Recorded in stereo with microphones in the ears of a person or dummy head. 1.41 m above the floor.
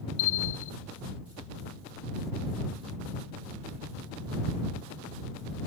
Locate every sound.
0.2 s a bell: 75° left (ahead or behind)